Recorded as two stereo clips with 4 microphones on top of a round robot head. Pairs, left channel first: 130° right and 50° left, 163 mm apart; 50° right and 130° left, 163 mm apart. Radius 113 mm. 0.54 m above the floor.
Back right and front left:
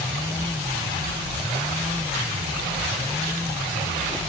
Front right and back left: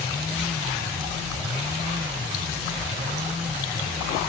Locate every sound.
Only background noise.